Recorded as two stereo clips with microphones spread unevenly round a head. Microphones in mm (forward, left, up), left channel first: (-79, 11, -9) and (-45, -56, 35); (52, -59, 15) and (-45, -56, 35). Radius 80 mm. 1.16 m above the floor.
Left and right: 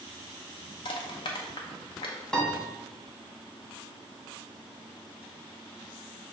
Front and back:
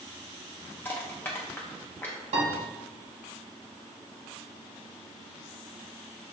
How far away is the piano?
About 1.1 m.